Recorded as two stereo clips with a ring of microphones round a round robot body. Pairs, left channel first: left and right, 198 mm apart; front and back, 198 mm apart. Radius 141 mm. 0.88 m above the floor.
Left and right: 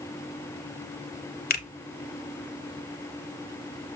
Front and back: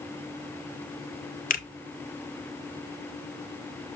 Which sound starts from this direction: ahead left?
A finger snap, at 1.5 s.